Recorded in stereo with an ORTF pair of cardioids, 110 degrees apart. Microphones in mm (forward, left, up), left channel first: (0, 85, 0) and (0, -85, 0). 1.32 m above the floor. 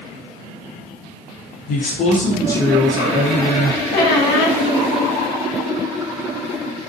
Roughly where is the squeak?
Ahead left.